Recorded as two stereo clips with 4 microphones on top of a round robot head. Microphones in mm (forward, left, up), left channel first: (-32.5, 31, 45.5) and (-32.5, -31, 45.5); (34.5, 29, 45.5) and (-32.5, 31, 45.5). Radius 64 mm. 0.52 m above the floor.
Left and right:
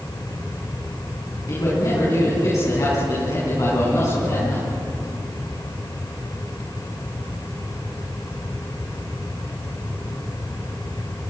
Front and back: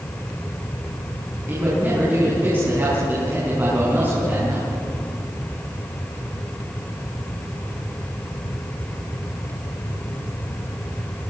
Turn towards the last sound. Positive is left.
turn(degrees=120)